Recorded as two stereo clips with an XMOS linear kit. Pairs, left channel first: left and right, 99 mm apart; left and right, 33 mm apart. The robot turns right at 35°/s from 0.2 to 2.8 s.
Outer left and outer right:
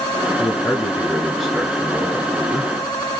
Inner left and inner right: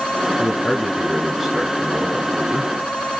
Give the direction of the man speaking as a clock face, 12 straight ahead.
7 o'clock.